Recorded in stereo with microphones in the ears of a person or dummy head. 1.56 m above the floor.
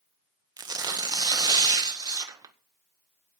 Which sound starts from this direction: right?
Tearing paper, at 0.6 s.